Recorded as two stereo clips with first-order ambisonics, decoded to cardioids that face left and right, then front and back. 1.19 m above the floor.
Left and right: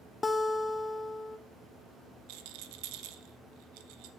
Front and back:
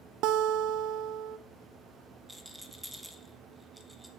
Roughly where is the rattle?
Right.